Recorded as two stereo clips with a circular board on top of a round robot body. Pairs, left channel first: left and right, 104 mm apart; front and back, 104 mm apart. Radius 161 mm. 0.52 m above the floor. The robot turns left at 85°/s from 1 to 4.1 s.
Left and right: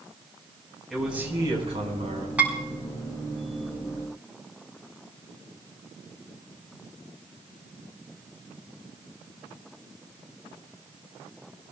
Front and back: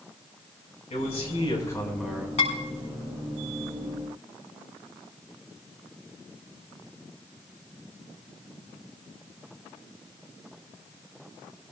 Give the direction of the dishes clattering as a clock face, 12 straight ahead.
12 o'clock.